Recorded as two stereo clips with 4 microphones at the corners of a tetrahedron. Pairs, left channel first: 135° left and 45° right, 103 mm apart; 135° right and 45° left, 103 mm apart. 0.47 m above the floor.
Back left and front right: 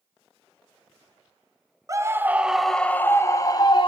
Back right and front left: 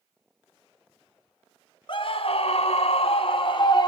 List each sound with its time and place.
1.9 s a scream: 100° right, 2 m; by 3.9 s straight behind, 3 m